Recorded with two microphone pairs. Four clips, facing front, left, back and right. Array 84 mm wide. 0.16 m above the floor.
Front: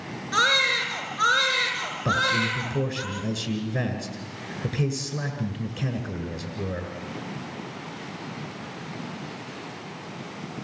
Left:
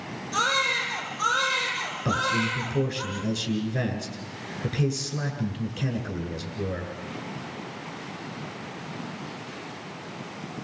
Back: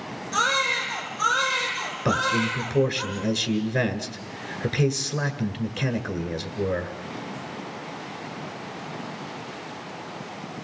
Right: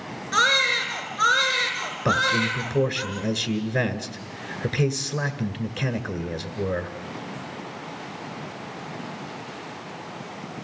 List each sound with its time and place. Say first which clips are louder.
0.3 s a baby crying: right 4 dB, front 1 dB; 60° right, 4.5 m
2.0 s a man speaking: right 4 dB, back 1 dB; 115° right, 1.6 m